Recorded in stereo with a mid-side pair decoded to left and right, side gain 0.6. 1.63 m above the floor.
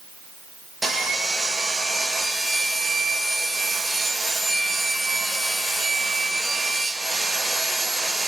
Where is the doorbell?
I don't hear a doorbell.